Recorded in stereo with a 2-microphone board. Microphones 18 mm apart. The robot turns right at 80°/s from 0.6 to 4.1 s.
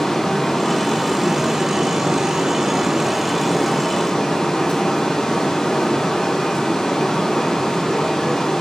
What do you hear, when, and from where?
0.0 s running water: 130° left, 2.5 m; by 8.6 s 50° left, 2.5 m